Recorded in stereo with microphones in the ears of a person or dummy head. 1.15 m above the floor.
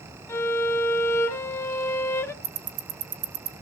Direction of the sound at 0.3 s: 15° left (ahead or behind).